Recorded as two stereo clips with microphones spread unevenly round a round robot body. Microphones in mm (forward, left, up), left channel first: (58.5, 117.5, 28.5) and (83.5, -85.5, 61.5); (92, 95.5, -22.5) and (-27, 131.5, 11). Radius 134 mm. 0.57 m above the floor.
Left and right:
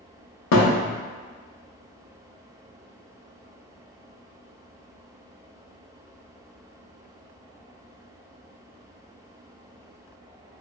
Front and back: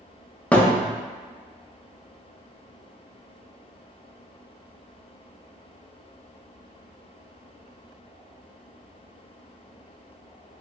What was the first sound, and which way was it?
A thud, 70° left.